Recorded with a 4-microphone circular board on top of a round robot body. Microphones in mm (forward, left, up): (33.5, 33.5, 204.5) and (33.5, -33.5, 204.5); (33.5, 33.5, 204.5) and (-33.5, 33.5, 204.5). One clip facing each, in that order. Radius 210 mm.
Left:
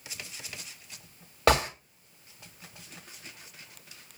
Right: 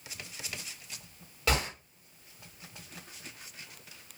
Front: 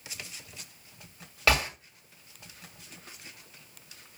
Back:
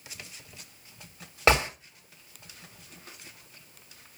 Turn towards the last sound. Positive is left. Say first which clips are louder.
# left 7 dB, back 3 dB
turn(degrees=115)